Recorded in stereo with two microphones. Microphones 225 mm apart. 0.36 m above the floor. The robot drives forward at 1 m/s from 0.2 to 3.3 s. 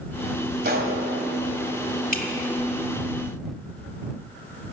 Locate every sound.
0.6 s a gunshot: 45° right (ahead or behind), 1.8 m; by 1.0 s 40° right (ahead or behind), 2.0 m
2.1 s dripping: 40° left (ahead or behind), 1.3 m